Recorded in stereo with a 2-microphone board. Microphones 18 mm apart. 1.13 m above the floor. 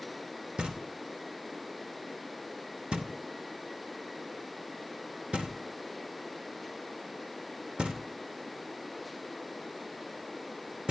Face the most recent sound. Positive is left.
turn(degrees=-70)  # may be behind; listen again after turning